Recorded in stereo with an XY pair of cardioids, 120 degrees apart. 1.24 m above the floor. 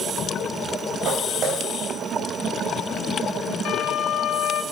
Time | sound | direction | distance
1.1 | footsteps | 70° right | 4 m
3.6 | a violin | 65° left | 0.8 m